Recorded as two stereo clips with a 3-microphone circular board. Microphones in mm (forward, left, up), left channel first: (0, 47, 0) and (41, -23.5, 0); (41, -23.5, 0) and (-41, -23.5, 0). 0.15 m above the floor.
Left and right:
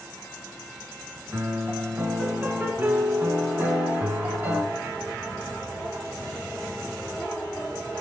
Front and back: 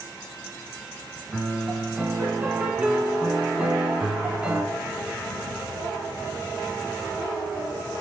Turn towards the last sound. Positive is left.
turn(degrees=-110)